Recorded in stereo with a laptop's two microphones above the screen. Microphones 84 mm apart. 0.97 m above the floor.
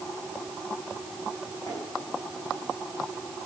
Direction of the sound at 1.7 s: 40° left (ahead or behind).